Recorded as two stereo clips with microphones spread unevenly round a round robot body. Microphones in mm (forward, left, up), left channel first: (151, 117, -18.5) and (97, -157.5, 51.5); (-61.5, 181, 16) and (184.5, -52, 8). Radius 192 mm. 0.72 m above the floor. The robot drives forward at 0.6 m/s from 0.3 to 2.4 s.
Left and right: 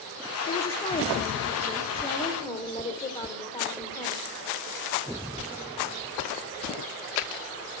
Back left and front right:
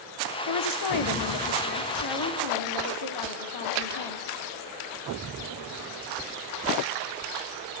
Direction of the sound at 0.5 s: 125° left.